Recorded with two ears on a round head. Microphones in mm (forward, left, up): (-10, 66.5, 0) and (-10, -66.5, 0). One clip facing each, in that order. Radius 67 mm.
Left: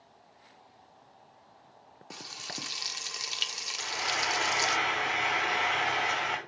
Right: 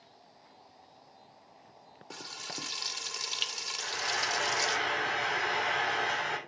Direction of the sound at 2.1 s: 5° left (ahead or behind).